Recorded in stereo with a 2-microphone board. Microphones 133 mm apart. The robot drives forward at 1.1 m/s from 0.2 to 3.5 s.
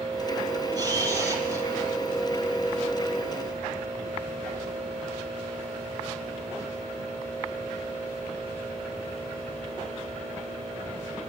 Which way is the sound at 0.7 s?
30° right (ahead or behind).